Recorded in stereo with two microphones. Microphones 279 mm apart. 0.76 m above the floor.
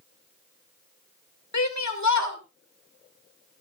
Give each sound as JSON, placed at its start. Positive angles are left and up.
{"t": 1.5, "sound": "a shout", "side_deg": 80, "distance_m": 2.5}